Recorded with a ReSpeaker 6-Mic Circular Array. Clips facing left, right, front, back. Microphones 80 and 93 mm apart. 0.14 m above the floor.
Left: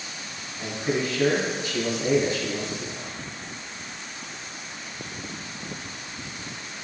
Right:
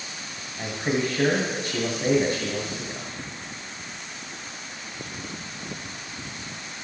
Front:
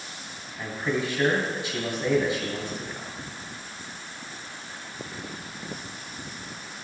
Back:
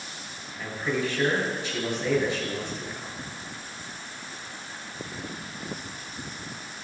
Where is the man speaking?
75° right, 2 m.